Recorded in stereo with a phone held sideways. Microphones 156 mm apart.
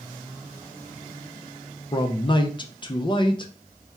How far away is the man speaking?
About 0.5 m.